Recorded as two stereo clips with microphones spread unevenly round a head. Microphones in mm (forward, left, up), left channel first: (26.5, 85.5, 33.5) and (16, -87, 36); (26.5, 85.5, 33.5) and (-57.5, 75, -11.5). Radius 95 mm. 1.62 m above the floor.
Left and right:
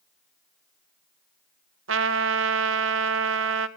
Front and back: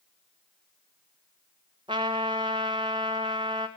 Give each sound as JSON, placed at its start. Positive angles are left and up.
{"t": 1.9, "sound": "a trumpet", "azimuth_deg": -95, "distance_m": 1.0}